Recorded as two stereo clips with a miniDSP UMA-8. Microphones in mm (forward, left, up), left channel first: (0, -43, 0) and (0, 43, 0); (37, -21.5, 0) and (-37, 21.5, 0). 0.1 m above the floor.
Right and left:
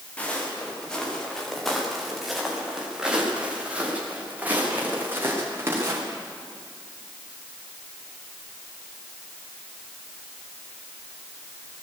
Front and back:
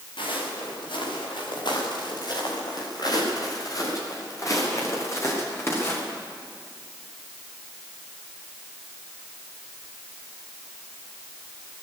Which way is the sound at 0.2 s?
15° right.